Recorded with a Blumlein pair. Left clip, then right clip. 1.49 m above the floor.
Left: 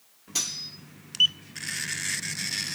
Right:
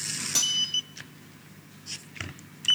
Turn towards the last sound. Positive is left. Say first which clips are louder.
# right 5 dB
turn(degrees=-45)